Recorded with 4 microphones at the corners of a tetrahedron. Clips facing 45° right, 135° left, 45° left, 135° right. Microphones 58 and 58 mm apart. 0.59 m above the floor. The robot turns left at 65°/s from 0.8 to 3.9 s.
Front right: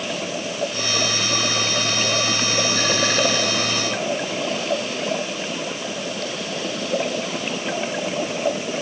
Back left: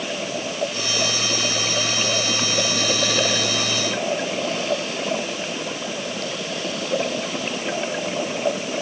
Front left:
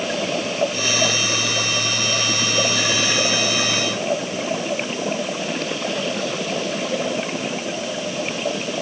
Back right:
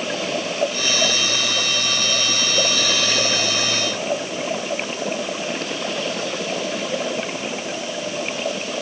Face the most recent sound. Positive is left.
No sound to turn to.